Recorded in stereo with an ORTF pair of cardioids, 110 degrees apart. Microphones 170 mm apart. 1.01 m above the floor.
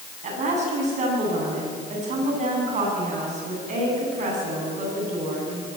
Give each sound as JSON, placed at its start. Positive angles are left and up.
{"t": 0.2, "sound": "a woman speaking", "azimuth_deg": -45, "distance_m": 10.0}